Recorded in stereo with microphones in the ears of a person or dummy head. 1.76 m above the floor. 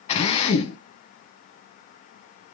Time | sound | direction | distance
0.1 | a drill | 40° left (ahead or behind) | 1.6 m